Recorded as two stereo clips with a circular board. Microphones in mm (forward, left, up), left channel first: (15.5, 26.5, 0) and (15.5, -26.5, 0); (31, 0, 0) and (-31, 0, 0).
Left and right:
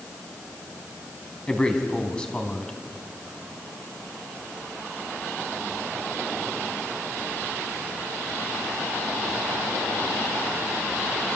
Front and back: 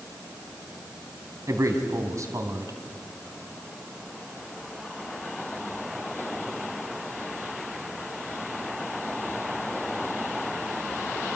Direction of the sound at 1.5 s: 160° left.